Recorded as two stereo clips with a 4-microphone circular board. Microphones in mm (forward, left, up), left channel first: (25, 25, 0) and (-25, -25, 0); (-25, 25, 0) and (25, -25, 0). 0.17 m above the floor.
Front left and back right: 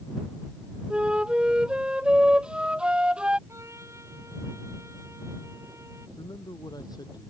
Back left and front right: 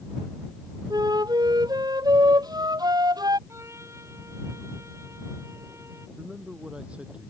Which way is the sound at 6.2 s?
30° left.